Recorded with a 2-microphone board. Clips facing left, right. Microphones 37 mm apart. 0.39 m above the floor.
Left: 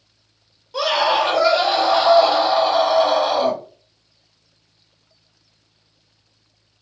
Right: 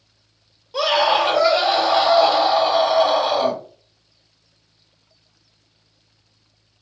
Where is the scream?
5° right (ahead or behind), 1.6 m.